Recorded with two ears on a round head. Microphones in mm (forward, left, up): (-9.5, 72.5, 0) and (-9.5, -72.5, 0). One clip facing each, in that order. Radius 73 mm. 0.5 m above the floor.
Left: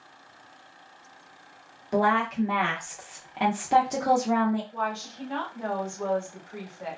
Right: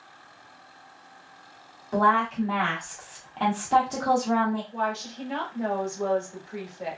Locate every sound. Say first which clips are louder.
1.9 s a woman speaking: right 1 dB; 15° left (ahead or behind), 0.7 m
4.7 s a woman speaking: right 2 dB; 25° right (ahead or behind), 1.1 m